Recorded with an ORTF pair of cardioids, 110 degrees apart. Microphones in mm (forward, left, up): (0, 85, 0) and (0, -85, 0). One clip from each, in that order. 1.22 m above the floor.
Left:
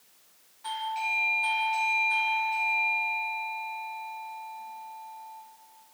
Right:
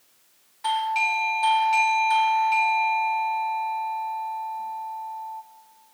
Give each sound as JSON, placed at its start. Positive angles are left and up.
{"t": 0.6, "sound": "a doorbell", "azimuth_deg": -65, "distance_m": 1.1}